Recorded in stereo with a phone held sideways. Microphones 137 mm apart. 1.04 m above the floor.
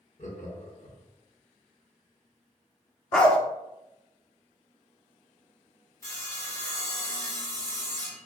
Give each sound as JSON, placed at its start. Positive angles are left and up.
{"t": 0.2, "sound": "laughter", "side_deg": 65, "distance_m": 1.3}
{"t": 3.1, "sound": "a dog barking", "side_deg": 5, "distance_m": 0.6}
{"t": 6.0, "sound": "sawing", "side_deg": 20, "distance_m": 1.1}